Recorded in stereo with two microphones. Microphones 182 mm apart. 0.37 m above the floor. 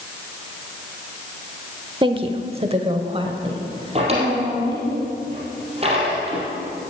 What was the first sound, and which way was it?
A woman speaking, 25° right (ahead or behind).